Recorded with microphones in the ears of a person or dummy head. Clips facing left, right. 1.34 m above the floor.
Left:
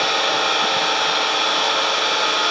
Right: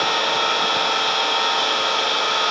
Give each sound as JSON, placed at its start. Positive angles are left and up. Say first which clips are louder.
{"t": 0.0, "sound": "an engine running", "louder": "left 1 dB", "side_deg": 60, "distance_m": 5.0}